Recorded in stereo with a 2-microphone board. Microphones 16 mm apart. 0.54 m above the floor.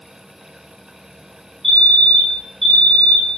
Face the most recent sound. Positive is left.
turn(degrees=10)  # may be behind; listen again after turning